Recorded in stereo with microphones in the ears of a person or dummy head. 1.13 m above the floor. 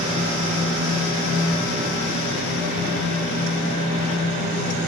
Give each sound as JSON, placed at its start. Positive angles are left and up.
{"t": 0.0, "sound": "a fan", "side_deg": -45, "distance_m": 1.3}